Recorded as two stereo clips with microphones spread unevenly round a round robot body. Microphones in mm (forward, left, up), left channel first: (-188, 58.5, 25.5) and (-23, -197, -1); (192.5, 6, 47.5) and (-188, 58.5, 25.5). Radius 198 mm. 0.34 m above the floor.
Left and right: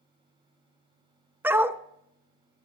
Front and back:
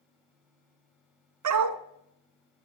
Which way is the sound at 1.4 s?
140° right.